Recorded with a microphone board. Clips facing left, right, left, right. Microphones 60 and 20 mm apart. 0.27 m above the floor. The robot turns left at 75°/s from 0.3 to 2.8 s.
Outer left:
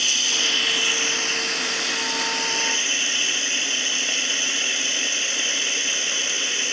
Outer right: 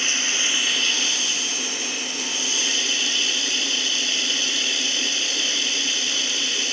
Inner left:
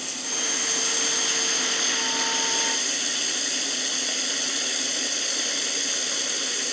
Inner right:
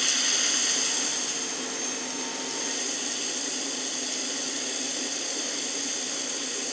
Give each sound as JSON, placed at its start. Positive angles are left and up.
{"t": 0.0, "sound": "running water", "azimuth_deg": -150, "distance_m": 0.8}